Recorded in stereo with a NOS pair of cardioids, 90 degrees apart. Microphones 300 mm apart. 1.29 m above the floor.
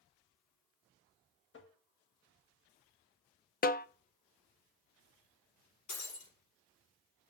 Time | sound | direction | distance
1.5 | tapping | 40° left | 1.4 m
3.6 | a snare drum | 30° left | 0.6 m
5.9 | breaking glass | 70° left | 4.5 m